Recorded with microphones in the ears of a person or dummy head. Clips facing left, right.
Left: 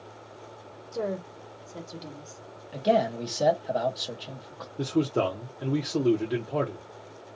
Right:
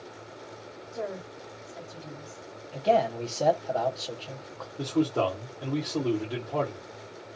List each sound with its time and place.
0.9 s a woman speaking: 55° left (ahead or behind), 1.2 m
2.7 s a man speaking: 20° left (ahead or behind), 1.0 m
4.8 s a man speaking: 25° left (ahead or behind), 0.7 m